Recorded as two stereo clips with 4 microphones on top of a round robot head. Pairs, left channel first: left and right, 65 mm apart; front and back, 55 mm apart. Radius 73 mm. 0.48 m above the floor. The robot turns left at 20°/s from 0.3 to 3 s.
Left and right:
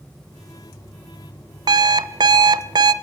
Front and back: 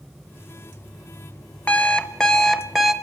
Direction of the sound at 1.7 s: 70° right.